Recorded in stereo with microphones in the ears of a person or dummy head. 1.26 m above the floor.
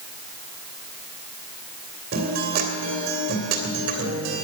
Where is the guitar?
60° right (ahead or behind), 2 m.